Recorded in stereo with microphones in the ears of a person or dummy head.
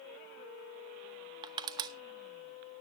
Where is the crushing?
25° right (ahead or behind), 0.8 m.